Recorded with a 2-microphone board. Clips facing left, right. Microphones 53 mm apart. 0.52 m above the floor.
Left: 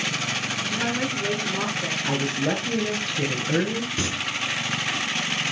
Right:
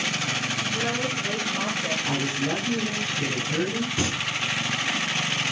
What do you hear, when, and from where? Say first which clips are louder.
0.7 s a woman speaking: left 3 dB; 35° left (ahead or behind), 8 m
2.0 s a woman speaking: left 2 dB; 45° left (ahead or behind), 6 m
4.0 s singing: right 2 dB; 10° right (ahead or behind), 3 m